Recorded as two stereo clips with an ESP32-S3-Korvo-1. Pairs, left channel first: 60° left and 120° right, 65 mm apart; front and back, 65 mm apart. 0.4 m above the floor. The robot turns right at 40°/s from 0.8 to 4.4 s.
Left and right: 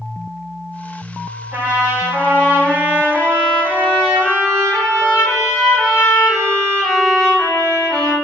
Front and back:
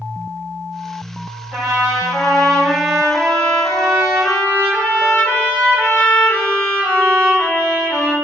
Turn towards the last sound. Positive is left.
turn(degrees=5)